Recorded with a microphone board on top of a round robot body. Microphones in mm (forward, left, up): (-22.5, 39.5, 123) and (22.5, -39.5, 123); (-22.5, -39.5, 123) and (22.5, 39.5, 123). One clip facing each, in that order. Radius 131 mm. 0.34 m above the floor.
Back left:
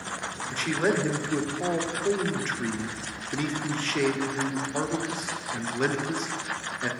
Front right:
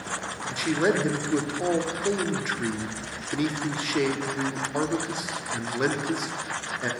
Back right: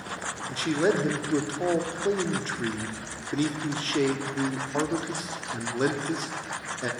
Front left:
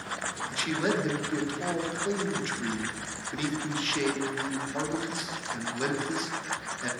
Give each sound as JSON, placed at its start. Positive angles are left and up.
{"t": 0.5, "sound": "a man speaking", "azimuth_deg": -130, "distance_m": 1.1}